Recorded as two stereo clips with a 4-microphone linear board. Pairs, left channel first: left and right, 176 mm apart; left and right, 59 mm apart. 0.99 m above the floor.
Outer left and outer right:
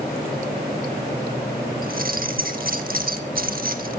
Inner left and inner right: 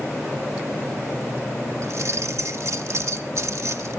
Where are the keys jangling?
60° right (ahead or behind), 1.2 m.